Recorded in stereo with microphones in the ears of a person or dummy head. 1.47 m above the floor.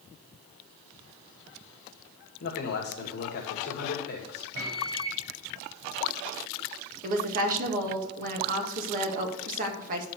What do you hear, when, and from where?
2.4 s a man speaking: 60° left (ahead or behind), 2.5 m
4.5 s a microwave: 80° right, 4.5 m
7.0 s a woman speaking: 50° right (ahead or behind), 2 m